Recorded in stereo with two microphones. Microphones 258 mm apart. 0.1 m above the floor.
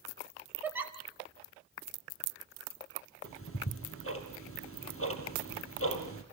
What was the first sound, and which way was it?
A giggle, 10° right (ahead or behind).